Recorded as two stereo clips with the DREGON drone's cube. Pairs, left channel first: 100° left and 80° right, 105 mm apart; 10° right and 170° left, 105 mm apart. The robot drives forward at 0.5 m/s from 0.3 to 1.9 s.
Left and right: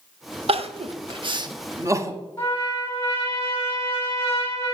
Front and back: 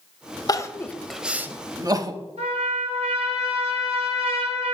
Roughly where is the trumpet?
Behind.